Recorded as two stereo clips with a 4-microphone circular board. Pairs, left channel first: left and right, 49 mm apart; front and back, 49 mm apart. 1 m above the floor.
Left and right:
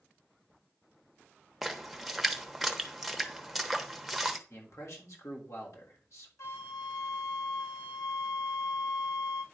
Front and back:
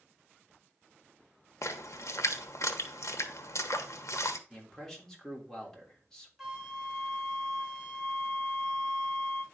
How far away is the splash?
About 1.1 m.